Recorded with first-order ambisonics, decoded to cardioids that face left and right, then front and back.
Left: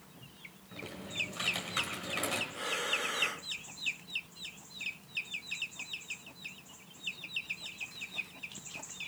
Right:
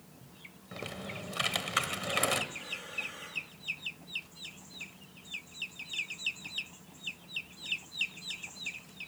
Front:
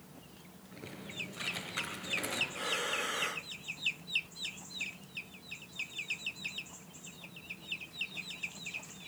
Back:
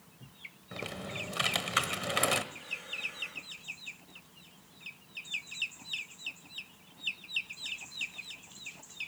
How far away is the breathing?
About 0.7 m.